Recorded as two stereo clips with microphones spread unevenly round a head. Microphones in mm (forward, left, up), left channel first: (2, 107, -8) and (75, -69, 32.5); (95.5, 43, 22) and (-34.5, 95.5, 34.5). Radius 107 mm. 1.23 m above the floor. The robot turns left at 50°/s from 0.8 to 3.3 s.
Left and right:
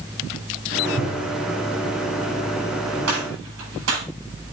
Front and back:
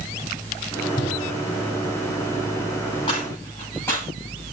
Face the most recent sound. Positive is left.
turn(degrees=-100)